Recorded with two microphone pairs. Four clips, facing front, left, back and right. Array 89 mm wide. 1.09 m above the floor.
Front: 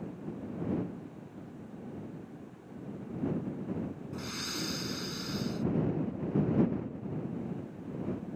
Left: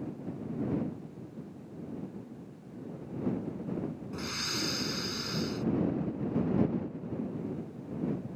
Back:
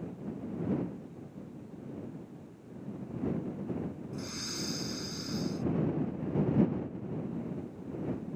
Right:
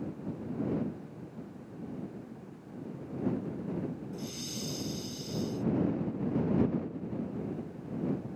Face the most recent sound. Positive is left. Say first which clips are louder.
# left 3 dB, front 1 dB
turn(degrees=70)